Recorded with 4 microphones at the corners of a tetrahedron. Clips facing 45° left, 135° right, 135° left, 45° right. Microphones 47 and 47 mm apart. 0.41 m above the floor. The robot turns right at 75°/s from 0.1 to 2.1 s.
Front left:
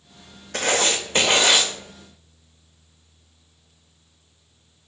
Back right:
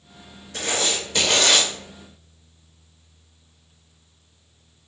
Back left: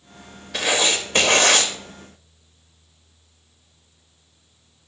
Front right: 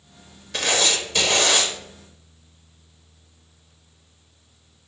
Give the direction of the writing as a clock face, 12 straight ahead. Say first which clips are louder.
Front left 4 dB, back left 1 dB; 10 o'clock.